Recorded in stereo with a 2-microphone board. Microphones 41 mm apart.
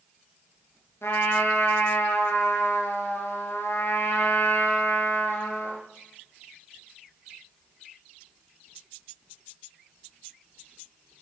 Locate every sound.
1.0 s a trumpet: 75° left (ahead or behind), 3 m